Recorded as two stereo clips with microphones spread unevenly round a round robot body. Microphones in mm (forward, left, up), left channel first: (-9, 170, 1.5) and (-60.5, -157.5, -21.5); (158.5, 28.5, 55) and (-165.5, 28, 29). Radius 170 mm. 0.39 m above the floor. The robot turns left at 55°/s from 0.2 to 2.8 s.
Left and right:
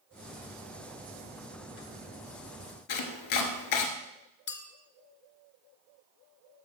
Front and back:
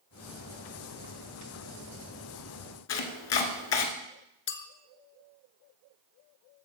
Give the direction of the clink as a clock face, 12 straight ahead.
11 o'clock.